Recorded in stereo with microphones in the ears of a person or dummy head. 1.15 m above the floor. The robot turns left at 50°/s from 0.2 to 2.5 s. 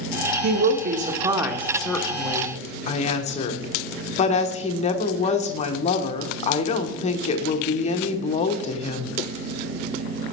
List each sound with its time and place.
0.4 s a woman speaking: 110° right, 1.1 m; by 9.1 s 145° left, 1.1 m